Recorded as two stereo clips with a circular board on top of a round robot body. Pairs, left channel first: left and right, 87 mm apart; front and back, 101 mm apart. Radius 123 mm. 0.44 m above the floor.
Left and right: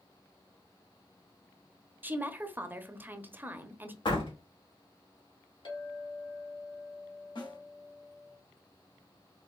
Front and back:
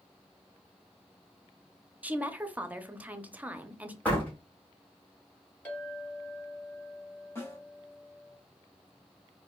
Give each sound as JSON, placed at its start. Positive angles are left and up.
{"t": 2.0, "sound": "a woman speaking", "azimuth_deg": -125, "distance_m": 0.8}
{"t": 4.0, "sound": "a door slam", "azimuth_deg": 75, "distance_m": 2.5}
{"t": 5.7, "sound": "a clink", "azimuth_deg": 75, "distance_m": 3.0}
{"t": 7.3, "sound": "a snare drum", "azimuth_deg": 65, "distance_m": 1.9}